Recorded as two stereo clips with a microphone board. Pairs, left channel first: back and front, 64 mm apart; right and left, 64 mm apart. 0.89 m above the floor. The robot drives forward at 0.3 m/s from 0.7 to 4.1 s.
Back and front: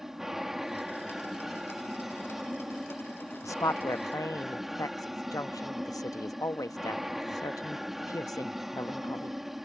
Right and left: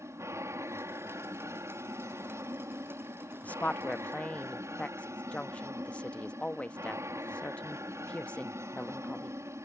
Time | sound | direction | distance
0.0 | an aircraft | 85° left | ?
3.4 | a woman speaking | 155° right | ?